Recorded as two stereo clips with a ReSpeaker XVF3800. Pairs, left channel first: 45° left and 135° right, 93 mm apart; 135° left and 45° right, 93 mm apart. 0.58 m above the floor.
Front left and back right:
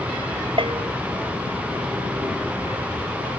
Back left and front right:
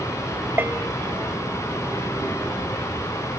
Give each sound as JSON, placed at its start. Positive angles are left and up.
{"t": 0.6, "sound": "a bell", "azimuth_deg": -115}